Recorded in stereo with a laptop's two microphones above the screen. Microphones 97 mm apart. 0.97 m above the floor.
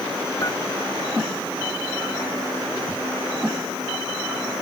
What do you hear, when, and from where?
0.4 s dishes clattering: 30° left (ahead or behind)